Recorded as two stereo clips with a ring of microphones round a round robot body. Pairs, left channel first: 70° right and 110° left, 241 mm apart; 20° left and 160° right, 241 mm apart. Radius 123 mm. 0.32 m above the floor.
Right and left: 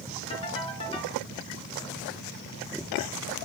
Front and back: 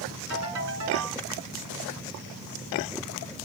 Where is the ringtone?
135° right, 3 m.